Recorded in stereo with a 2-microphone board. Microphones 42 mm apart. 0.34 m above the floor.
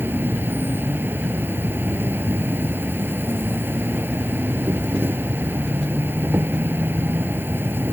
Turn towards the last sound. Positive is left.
turn(degrees=-60)  # may be behind; listen again after turning